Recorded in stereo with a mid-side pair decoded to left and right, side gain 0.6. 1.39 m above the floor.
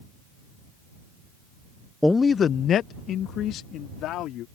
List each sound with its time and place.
2.0 s a man speaking: 5° left; by 4.5 s 65° left